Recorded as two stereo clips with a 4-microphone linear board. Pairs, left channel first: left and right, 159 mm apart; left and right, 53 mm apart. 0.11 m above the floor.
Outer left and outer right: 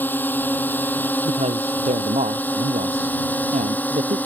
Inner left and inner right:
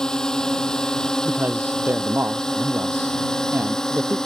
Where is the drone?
10° left (ahead or behind).